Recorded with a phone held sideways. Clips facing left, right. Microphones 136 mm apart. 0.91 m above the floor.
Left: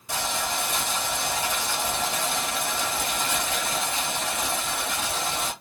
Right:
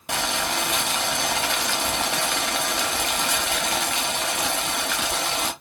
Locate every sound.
0.1 s boiling: 75° right (ahead or behind), 0.7 m